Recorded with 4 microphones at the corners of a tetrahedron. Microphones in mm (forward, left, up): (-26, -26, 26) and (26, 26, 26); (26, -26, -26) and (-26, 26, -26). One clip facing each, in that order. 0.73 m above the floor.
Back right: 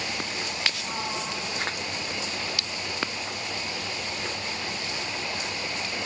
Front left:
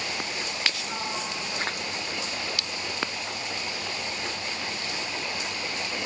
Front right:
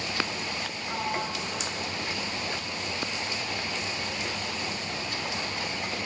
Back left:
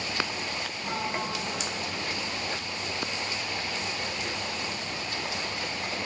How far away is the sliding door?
About 7.5 m.